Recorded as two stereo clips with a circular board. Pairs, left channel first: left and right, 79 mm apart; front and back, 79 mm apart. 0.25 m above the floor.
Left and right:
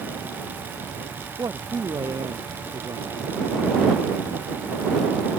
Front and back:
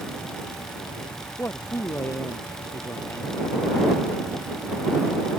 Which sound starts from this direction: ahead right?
A man speaking, at 1.4 s.